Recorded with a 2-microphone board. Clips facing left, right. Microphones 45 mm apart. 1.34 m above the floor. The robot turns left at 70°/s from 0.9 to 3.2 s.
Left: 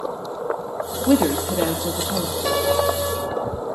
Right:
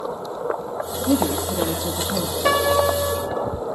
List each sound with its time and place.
1.1 s a woman speaking: 85° left, 3 m; by 2.4 s 5° right, 3 m
2.5 s a piano: 130° right, 4.5 m; by 3.4 s 175° left, 4.5 m